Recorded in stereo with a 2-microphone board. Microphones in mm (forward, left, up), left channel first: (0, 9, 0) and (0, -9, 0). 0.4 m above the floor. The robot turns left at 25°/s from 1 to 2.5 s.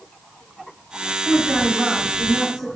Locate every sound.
1.2 s a woman speaking: 175° right, 3 m; by 2.7 s 155° left, 3 m